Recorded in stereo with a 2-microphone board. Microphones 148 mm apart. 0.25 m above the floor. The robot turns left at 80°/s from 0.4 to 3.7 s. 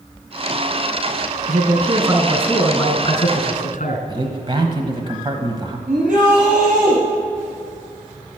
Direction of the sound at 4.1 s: 35° right (ahead or behind).